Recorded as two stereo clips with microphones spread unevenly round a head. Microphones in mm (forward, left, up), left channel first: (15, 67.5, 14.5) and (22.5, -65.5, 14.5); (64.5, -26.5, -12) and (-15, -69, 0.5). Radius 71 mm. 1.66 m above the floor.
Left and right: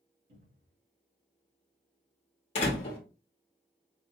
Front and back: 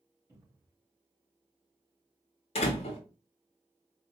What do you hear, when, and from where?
0.3 s a cupboard door: 85° right, 2.5 m
2.5 s a door slam: 55° left, 1.3 m